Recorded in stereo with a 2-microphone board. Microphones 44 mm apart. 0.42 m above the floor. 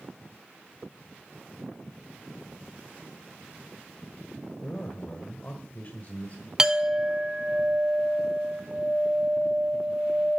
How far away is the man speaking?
About 1.6 m.